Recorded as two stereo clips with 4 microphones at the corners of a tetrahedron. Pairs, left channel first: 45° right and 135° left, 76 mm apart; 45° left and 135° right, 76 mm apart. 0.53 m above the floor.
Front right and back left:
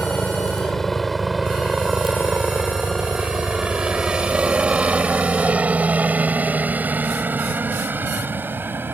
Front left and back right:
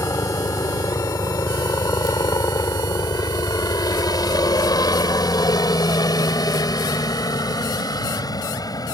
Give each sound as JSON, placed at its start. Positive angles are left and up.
{"t": 0.0, "sound": "a helicopter", "azimuth_deg": 35}